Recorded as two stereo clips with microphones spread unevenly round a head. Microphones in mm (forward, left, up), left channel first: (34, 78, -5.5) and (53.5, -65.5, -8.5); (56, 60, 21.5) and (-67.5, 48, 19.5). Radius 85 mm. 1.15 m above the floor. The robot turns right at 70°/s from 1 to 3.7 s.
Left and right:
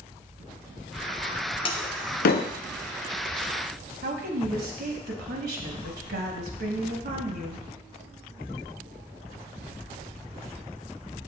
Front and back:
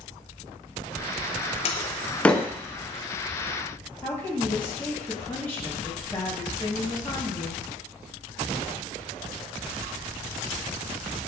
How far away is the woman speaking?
About 0.9 m.